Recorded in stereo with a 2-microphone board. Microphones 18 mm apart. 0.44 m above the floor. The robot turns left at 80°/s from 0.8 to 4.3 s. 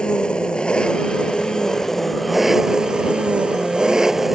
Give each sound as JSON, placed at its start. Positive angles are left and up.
{"t": 0.0, "sound": "an engine running", "azimuth_deg": 115}